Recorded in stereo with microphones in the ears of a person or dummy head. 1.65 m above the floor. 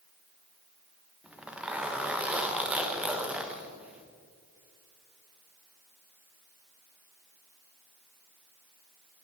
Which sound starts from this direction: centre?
A zipper, at 1.2 s.